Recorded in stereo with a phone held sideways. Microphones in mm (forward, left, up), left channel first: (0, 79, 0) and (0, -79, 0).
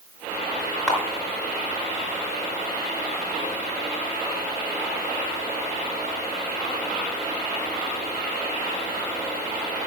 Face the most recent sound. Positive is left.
turn(degrees=5)  # may be behind; listen again after turning